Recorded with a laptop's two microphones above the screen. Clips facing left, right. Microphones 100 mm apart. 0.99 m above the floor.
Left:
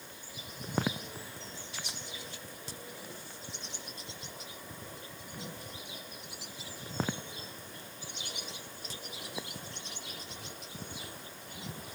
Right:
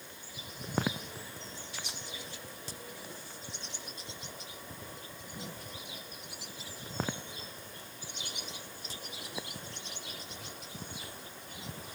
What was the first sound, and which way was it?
Only background noise.